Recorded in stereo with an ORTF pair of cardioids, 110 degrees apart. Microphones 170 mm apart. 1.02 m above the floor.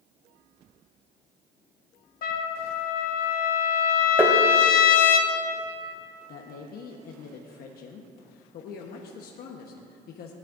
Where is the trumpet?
60° left, 1.4 m.